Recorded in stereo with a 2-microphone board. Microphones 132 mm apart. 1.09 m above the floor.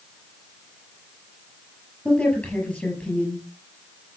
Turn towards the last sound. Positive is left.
turn(degrees=5)  # may be behind; listen again after turning